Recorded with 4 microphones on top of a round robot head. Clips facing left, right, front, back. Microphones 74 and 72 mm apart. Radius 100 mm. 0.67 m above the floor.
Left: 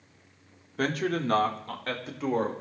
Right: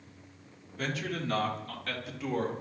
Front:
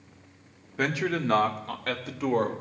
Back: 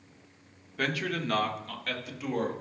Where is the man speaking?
65° left, 1.9 m; by 2.5 s 35° left, 3 m.